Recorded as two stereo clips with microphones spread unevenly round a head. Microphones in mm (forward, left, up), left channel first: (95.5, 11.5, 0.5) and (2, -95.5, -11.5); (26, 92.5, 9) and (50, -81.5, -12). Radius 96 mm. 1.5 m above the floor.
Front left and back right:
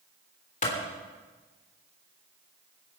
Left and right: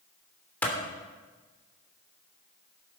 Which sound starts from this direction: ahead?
A clap, at 0.6 s.